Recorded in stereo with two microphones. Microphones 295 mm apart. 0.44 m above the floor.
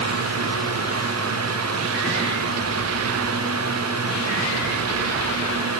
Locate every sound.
Only background noise.